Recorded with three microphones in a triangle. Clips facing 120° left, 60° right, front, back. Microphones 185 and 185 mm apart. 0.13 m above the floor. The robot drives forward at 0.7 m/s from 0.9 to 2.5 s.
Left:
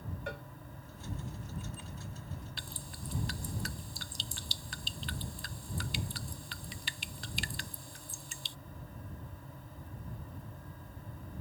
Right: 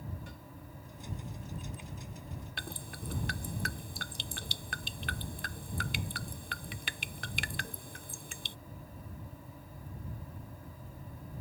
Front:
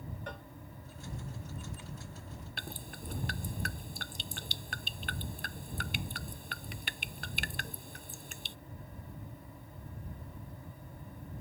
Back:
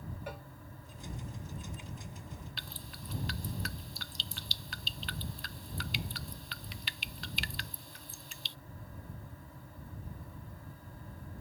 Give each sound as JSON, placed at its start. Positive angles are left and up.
{"t": 0.3, "sound": "a cowbell", "azimuth_deg": 100}
{"t": 2.6, "sound": "dripping", "azimuth_deg": -35}